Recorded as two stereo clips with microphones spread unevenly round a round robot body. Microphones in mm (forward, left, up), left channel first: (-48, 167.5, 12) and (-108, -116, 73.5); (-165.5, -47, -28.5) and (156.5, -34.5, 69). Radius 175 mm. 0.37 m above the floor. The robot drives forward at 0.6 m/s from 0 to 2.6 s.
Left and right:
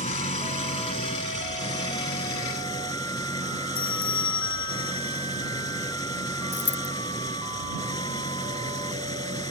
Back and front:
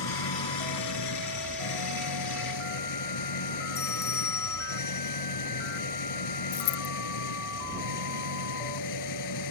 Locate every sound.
0.0 s an engine running: 145° left; by 9.5 s 155° left
3.8 s a bell: 110° left
6.5 s a dropped coin: 130° left